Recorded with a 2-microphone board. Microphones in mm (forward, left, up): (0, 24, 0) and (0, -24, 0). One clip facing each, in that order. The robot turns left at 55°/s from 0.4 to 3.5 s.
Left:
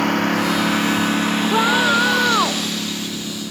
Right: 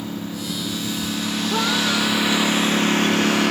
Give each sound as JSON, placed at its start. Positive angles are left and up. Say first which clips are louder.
{"t": 0.0, "sound": "a lawn mower", "louder": "left 11 dB", "side_deg": 80}
{"t": 1.5, "sound": "a scream", "louder": "left 5 dB", "azimuth_deg": 160}